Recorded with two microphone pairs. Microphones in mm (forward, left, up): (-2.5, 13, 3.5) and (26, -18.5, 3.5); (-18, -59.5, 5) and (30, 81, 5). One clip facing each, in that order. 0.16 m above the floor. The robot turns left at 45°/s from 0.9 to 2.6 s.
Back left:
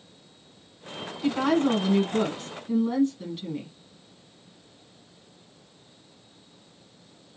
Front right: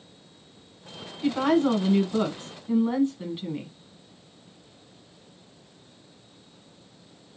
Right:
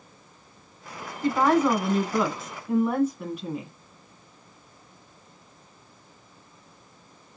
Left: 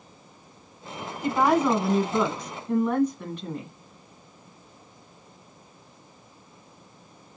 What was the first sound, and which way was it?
A woman speaking, 25° left.